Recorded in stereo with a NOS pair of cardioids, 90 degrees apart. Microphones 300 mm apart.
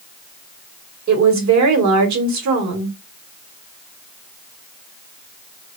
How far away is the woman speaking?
About 1.4 m.